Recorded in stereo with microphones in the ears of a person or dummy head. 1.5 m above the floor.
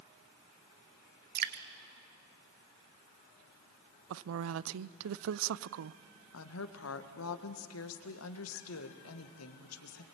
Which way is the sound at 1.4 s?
50° right (ahead or behind).